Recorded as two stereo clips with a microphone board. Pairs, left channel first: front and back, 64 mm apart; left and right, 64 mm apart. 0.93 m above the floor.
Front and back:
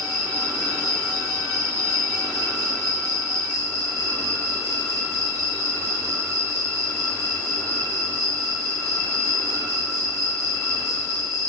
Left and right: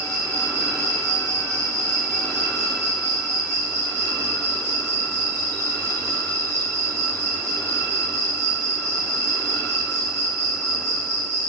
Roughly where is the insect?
Behind right.